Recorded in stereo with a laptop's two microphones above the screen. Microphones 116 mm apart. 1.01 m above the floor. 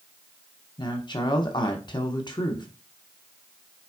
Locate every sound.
0.8 s a woman speaking: 35° left (ahead or behind), 0.9 m